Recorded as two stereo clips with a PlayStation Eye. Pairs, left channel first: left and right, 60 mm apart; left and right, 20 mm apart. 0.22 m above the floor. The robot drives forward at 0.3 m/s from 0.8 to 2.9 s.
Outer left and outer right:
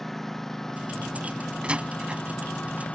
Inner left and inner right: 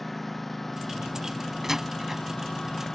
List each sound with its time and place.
0.0 s a lawn mower: 5° left (ahead or behind); by 3.0 s 20° left (ahead or behind)
1.6 s a door slam: 20° right (ahead or behind)